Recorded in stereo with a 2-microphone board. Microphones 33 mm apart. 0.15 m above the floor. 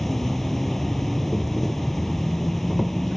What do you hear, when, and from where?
0.0 s an insect: 5° left (ahead or behind)